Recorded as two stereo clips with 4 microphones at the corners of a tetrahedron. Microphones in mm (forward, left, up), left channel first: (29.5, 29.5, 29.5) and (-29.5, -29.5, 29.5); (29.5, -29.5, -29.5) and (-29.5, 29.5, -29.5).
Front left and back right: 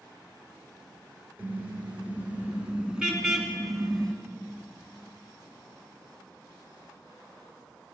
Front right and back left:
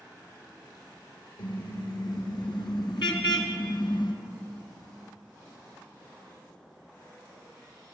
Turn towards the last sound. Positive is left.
turn(degrees=-35)